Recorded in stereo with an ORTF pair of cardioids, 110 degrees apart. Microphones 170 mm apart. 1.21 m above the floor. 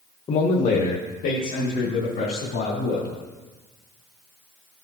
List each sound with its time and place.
0.3 s a man speaking: 35° left, 0.9 m; by 3.1 s 65° left, 4 m